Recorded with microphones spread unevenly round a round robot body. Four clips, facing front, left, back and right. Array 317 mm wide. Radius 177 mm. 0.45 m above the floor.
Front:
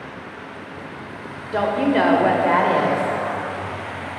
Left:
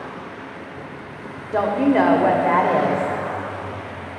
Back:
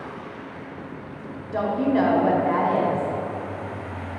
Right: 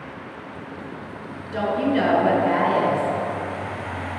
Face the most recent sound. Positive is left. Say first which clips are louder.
# left 4 dB, front 3 dB
turn(degrees=45)